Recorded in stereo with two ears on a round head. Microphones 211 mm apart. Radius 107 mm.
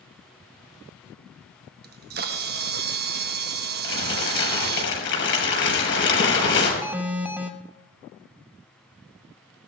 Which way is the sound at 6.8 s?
5° right (ahead or behind).